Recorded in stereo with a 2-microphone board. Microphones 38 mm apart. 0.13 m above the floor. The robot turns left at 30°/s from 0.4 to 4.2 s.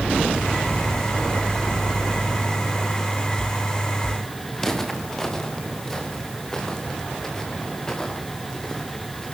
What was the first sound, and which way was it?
Footsteps, 10° left (ahead or behind).